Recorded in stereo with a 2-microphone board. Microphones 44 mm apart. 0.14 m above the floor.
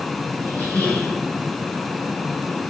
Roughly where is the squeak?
Left.